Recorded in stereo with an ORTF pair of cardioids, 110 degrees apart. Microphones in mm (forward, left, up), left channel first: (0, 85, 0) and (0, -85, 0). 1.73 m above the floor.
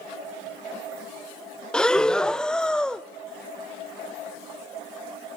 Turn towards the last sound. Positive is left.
turn(degrees=5)